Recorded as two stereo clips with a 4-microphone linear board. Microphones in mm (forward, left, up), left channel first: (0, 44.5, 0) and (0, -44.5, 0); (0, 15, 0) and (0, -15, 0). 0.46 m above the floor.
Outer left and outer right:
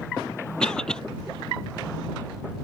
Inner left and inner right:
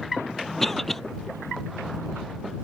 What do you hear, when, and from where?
0.6 s a cough: 10° left (ahead or behind)